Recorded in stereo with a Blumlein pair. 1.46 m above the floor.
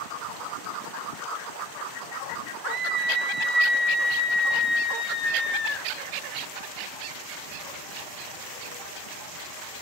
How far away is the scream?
About 1.1 m.